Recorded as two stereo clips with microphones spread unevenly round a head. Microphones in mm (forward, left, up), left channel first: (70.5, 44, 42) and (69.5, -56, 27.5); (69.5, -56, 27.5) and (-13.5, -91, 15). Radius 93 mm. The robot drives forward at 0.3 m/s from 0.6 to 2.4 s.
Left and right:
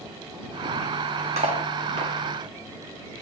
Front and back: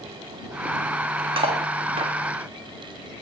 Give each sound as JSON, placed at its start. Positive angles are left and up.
{"t": 1.4, "sound": "cutlery clinking", "azimuth_deg": -135, "distance_m": 1.1}